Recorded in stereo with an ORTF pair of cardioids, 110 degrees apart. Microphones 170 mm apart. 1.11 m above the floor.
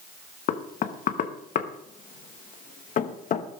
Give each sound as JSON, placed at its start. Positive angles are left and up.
{"t": 0.5, "sound": "knocking", "azimuth_deg": 50, "distance_m": 1.1}